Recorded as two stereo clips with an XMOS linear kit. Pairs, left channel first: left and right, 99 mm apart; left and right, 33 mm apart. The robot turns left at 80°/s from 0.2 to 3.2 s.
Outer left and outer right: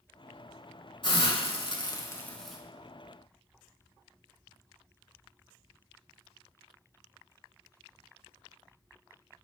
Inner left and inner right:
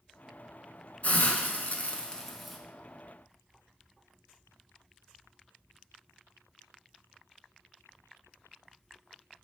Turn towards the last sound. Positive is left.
turn(degrees=-55)